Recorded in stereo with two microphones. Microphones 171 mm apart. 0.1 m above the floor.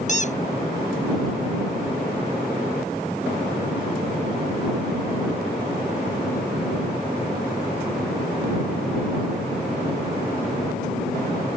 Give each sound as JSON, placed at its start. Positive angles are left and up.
{"t": 0.1, "sound": "a squeak", "side_deg": 45}